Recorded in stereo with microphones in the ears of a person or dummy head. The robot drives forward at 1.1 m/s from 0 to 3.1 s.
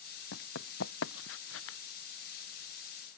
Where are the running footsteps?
65° left (ahead or behind); by 1.8 s 75° left (ahead or behind).